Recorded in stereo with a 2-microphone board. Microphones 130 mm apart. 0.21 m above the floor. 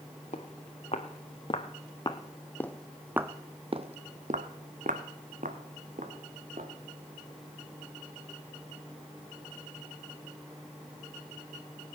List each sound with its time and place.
0.3 s footsteps: 55° left (ahead or behind), 1.7 m; by 6.7 s 85° right, 2 m